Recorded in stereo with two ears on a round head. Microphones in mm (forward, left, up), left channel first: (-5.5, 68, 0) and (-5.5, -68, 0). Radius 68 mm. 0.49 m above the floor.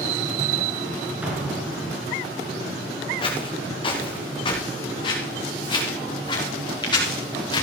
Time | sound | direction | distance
1.2 | an explosion | 10° right (ahead or behind) | 5 m
3.2 | footsteps | 35° left (ahead or behind) | 4.5 m